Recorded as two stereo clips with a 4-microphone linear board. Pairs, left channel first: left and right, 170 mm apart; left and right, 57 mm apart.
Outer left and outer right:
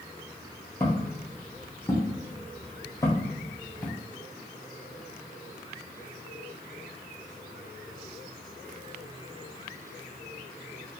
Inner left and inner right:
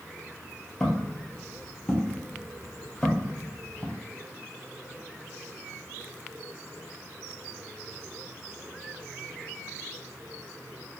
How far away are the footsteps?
About 1.1 m.